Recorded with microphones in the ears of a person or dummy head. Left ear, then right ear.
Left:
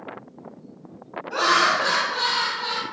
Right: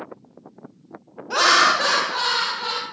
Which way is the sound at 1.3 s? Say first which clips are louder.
Right 3 dB; 75° right (ahead or behind).